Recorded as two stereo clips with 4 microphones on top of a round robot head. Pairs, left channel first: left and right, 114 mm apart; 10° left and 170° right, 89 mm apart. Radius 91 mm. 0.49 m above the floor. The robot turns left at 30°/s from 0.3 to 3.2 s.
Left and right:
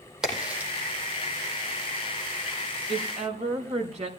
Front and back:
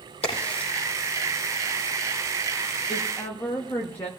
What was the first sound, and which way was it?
A crack, 5° right.